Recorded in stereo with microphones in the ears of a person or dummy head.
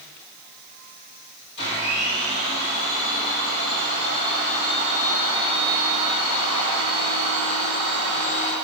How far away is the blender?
About 2.5 m.